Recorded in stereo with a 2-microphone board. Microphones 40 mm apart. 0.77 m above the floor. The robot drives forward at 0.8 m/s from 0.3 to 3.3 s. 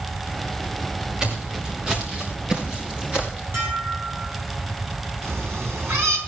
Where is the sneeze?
No sneeze in this recording.